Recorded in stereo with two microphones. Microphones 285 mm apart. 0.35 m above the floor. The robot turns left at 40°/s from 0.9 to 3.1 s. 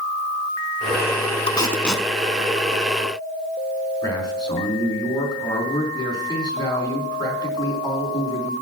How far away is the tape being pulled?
About 0.8 m.